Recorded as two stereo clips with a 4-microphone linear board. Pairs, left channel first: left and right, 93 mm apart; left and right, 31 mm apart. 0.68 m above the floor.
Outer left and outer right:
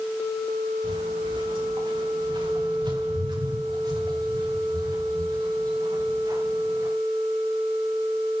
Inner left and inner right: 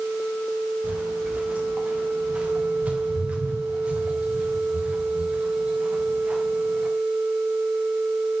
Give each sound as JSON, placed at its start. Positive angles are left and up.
{"t": 0.8, "sound": "footsteps", "side_deg": -65, "distance_m": 8.0}